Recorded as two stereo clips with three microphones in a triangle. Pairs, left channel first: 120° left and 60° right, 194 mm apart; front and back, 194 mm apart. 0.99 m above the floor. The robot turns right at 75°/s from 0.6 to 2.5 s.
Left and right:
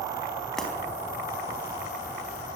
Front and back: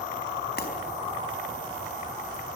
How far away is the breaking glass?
About 4.5 m.